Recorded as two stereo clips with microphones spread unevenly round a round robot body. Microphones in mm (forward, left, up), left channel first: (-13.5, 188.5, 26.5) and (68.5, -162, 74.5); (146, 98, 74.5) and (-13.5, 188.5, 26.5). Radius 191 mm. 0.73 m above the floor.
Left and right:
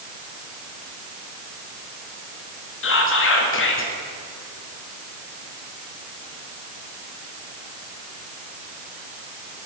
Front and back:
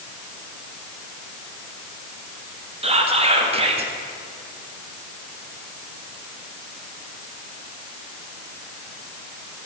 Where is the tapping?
I don't hear tapping.